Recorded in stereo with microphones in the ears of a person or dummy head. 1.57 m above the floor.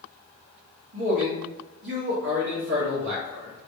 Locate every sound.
0.9 s a man speaking: 65° right (ahead or behind), 1.5 m